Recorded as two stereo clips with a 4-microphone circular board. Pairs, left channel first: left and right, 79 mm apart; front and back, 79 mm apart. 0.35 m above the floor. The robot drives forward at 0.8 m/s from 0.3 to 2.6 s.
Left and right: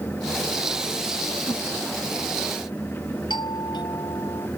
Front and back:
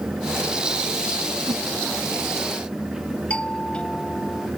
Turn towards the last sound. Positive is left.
turn(degrees=75)